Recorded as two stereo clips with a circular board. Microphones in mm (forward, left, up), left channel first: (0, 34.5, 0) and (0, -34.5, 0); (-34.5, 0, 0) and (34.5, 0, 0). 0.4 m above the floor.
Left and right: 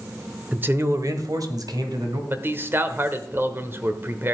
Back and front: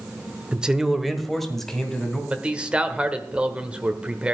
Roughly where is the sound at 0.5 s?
Ahead right.